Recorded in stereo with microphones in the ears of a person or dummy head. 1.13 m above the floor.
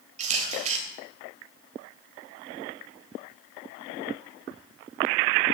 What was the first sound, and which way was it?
A camera shutter, 45° right (ahead or behind).